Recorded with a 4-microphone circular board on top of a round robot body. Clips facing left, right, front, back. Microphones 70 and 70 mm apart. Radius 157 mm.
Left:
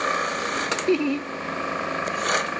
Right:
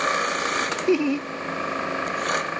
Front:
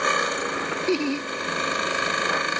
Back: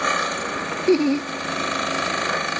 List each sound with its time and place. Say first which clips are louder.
0.9 s laughter: right 1 dB, back 8 dB; 170° right, 0.6 m